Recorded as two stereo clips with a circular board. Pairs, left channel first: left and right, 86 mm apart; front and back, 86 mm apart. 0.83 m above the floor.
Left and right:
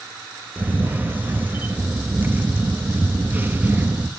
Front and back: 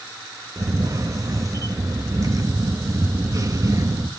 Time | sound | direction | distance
0.6 | a camera shutter | 150° right | 1.1 m